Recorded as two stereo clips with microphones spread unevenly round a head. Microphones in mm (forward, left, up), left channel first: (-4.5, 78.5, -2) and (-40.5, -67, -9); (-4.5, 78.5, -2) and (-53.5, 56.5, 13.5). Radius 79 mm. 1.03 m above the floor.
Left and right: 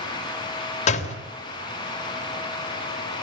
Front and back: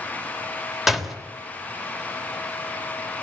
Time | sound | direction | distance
0.9 | a door slam | 120° left | 2.5 m